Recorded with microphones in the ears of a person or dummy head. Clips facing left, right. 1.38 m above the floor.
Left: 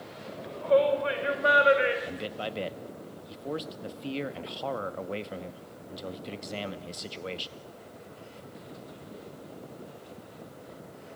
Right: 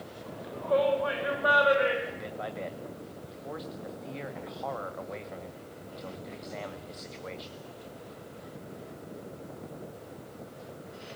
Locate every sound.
0.3 s a shout: 40° left (ahead or behind), 6.5 m; by 1.9 s 25° left (ahead or behind), 5 m
2.0 s a man speaking: 40° left (ahead or behind), 1.7 m